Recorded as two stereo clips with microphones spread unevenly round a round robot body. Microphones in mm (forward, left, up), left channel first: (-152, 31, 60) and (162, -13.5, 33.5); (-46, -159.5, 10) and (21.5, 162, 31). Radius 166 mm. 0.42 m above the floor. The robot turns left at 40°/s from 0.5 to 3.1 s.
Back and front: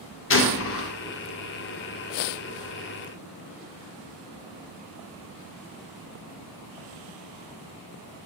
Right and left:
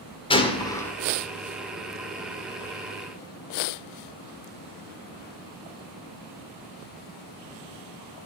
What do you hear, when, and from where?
0.3 s a gunshot: 165° right, 1.1 m; by 0.9 s straight behind, 1.1 m